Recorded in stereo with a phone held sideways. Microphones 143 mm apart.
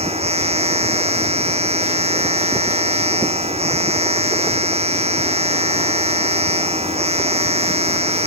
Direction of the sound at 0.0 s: 45° right (ahead or behind).